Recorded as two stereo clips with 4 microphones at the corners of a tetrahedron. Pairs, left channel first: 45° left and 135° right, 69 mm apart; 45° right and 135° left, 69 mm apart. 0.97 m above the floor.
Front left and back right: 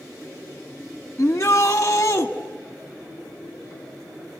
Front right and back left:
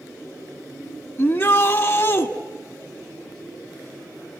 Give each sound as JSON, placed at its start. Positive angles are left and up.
{"t": 1.2, "sound": "a shout", "azimuth_deg": -10, "distance_m": 1.4}